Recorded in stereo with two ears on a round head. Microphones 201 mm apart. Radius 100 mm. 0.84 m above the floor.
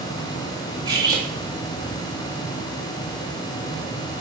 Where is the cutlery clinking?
20° right (ahead or behind), 2 m.